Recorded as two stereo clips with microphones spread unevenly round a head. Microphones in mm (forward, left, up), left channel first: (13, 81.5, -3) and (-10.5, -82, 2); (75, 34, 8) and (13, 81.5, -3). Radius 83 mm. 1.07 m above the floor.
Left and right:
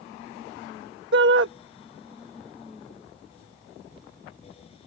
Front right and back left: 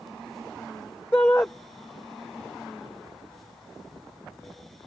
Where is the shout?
115° right.